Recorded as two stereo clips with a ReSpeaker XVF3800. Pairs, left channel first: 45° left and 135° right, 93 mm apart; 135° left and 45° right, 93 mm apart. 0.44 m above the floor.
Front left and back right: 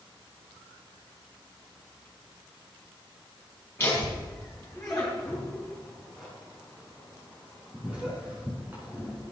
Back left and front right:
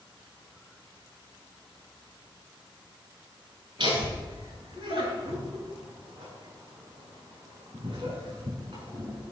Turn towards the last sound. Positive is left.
turn(degrees=-65)